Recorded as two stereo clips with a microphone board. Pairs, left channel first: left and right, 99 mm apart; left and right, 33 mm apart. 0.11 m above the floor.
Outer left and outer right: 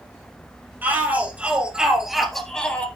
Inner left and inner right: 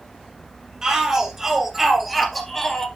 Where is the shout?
15° right (ahead or behind), 3 m; by 2.9 s 15° left (ahead or behind), 1.5 m.